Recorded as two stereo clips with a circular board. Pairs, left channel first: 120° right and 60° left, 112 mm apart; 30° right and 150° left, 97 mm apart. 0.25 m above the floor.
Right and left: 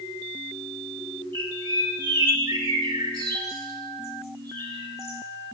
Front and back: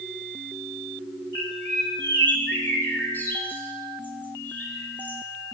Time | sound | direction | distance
1.3 | a bird | 30° left | 1.4 m